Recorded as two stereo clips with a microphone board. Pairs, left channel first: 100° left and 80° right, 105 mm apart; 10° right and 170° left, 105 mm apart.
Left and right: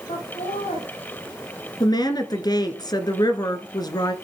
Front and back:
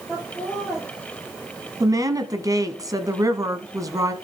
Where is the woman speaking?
130° left, 1.6 m.